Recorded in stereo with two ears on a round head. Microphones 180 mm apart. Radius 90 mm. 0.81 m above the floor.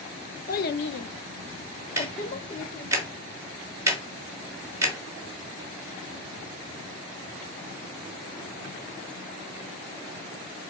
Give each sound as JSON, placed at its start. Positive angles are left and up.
{"t": 0.5, "sound": "a child speaking", "side_deg": 40, "distance_m": 0.8}
{"t": 2.0, "sound": "ticking", "side_deg": -15, "distance_m": 1.3}